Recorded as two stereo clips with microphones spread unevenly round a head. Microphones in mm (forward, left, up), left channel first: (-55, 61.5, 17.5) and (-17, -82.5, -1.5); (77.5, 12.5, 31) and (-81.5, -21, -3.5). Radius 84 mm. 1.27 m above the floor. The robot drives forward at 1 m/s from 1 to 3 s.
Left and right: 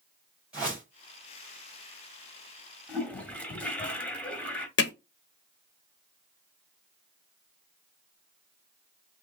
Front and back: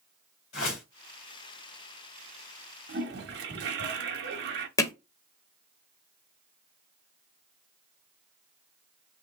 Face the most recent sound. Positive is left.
turn(degrees=85)